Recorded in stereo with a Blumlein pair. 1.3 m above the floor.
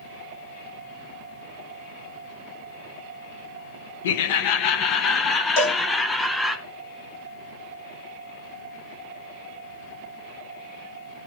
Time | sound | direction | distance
4.0 | laughter | 55° left | 1.0 m
5.6 | a cowbell | 55° left | 1.7 m